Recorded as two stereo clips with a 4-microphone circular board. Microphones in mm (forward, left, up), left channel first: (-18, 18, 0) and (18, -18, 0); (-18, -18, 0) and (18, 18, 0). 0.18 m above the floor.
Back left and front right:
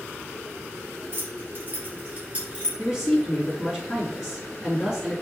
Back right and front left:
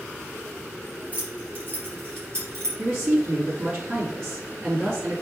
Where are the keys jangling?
10° right, 2.5 m; by 2.7 s 25° left, 3 m.